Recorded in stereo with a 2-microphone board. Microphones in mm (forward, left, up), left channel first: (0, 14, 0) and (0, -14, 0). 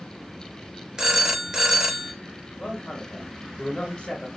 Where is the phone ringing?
25° right (ahead or behind), 0.6 m.